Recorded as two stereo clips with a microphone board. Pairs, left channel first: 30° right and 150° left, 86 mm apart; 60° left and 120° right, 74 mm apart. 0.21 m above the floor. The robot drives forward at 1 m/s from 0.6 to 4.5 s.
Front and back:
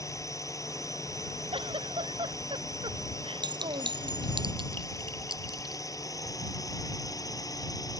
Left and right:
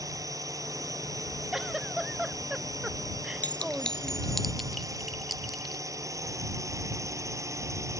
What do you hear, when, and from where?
0.0 s a drone: 80° right; by 8.0 s 75° right
1.5 s a giggle: 155° left; by 4.3 s 160° left
3.4 s a clink: 125° left; by 5.8 s 150° left